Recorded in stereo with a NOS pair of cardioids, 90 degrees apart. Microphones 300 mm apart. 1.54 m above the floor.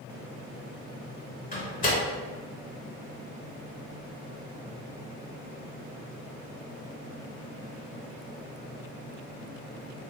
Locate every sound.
1.5 s a door slam: 30° left, 1.4 m